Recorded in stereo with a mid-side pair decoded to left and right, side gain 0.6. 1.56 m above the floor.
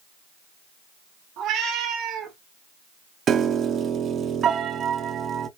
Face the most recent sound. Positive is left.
turn(degrees=-45)